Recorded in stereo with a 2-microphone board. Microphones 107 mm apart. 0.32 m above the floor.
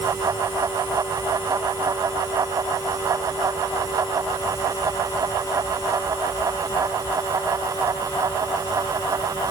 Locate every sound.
Only background noise.